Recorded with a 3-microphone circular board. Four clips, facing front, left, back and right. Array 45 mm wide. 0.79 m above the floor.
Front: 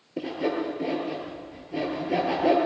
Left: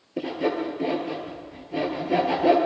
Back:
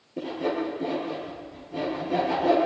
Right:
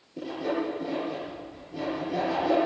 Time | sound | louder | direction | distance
0.2 | sawing | left 4 dB, even | 65° left | 5.5 m